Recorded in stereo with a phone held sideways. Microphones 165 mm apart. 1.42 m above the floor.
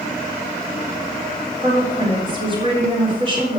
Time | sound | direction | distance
1.6 | a woman speaking | 30° right (ahead or behind) | 4.5 m